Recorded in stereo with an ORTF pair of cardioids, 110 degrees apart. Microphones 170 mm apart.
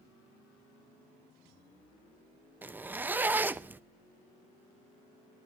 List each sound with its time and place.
2.6 s a zipper: 10° right, 0.7 m